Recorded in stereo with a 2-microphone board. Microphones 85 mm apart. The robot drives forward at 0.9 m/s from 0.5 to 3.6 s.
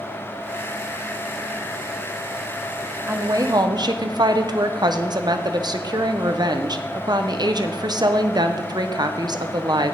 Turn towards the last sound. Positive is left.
turn(degrees=-55)  # may be behind; listen again after turning